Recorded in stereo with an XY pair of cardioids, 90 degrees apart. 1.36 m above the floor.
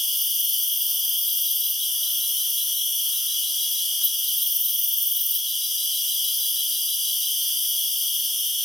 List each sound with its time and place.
0.0 s an insect: 15° left, 1.4 m